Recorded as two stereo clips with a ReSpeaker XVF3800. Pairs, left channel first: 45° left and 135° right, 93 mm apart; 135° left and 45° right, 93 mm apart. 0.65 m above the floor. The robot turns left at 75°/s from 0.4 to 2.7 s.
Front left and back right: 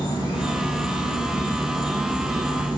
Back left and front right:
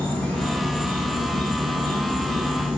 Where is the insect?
60° left, 0.9 m; by 2.8 s 110° right, 0.9 m.